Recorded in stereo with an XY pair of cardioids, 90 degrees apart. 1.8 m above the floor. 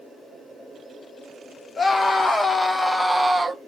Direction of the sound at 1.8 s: 45° left.